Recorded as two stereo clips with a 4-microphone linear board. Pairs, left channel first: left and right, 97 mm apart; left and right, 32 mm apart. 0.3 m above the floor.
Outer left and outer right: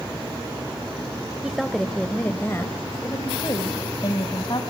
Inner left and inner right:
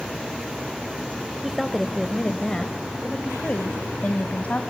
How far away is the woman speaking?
About 1.4 m.